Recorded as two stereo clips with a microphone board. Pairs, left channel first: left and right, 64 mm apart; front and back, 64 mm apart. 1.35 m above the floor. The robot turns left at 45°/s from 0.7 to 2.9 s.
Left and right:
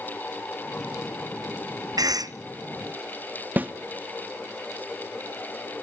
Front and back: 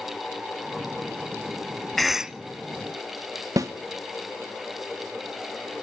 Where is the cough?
90° right, 0.6 m; by 2.4 s 105° right, 0.6 m.